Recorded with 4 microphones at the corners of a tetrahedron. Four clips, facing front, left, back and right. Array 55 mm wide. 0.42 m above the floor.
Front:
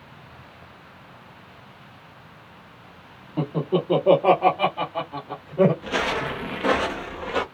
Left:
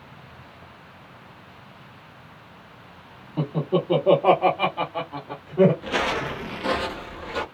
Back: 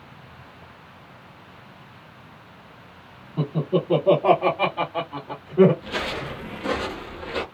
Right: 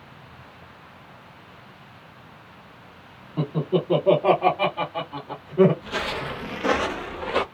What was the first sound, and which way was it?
Laughter, 5° left.